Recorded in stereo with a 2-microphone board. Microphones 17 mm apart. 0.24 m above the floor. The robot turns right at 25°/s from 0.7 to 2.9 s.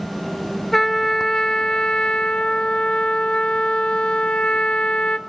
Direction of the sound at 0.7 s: 20° left.